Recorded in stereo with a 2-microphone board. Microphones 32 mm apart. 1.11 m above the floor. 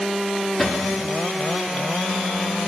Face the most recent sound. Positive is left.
turn(degrees=15)  # may be behind; listen again after turning